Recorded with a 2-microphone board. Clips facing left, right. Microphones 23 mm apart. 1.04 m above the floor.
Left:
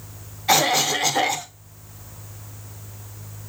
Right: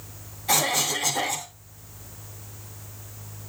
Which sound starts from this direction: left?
A cough, at 0.5 s.